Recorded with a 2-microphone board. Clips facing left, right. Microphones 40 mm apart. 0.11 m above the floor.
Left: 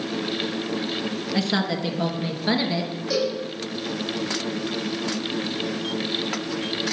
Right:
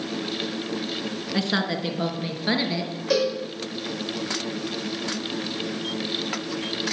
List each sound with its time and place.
1.3 s a woman speaking: 10° right (ahead or behind), 1.1 m; by 2.9 s 5° right (ahead or behind), 1.5 m
3.1 s a cowbell: 70° right (ahead or behind), 5 m